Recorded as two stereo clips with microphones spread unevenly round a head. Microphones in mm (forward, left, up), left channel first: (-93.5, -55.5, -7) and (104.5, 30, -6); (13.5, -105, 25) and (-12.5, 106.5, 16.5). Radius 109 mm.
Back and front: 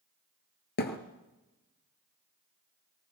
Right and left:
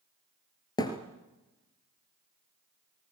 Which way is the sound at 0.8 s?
145° right.